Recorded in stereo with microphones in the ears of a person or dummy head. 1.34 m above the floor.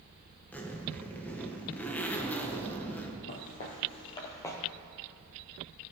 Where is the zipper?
10° left (ahead or behind), 1.2 m.